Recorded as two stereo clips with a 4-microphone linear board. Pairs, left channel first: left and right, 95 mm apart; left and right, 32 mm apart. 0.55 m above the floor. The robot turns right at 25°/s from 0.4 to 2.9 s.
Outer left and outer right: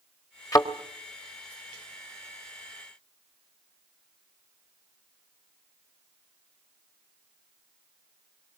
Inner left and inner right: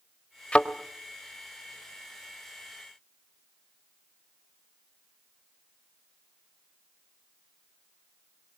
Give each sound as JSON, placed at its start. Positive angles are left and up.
{"t": 0.5, "sound": "a thud", "side_deg": 40, "distance_m": 1.3}